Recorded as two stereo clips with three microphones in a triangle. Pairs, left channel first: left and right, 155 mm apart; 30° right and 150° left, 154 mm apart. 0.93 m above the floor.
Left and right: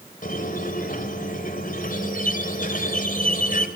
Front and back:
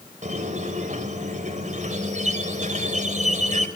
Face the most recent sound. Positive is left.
turn(degrees=115)